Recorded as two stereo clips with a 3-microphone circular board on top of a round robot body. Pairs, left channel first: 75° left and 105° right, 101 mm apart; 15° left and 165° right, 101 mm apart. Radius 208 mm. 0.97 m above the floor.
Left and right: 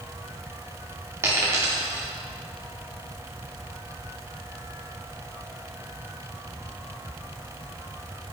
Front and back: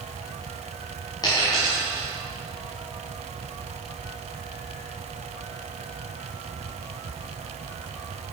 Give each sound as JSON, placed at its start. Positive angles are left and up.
{"t": 1.2, "sound": "a dropped coin", "azimuth_deg": -40, "distance_m": 0.8}